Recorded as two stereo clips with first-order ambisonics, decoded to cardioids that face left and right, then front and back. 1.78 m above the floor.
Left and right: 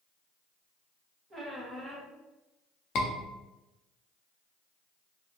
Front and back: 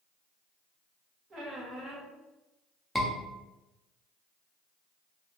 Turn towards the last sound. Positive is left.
turn(degrees=85)